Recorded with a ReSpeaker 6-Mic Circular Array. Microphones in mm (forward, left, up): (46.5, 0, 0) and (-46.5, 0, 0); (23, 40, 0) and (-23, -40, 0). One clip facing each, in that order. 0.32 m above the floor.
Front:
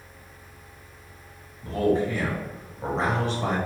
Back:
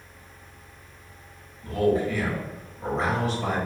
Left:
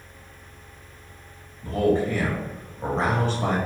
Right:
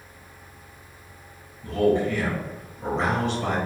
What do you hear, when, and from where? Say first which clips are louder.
1.6 s a man speaking: even, even; 40° left, 1.5 m